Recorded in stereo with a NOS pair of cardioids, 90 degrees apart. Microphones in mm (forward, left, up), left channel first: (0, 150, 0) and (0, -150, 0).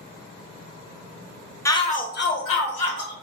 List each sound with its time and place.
1.6 s a shout: 10° left, 0.7 m; by 3.1 s 60° left, 1.5 m